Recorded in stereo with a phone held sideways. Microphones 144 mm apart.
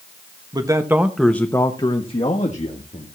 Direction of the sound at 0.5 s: 30° right (ahead or behind).